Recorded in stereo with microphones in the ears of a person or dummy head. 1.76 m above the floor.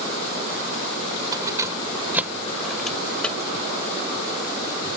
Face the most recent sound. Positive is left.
turn(degrees=20)  # may be behind; listen again after turning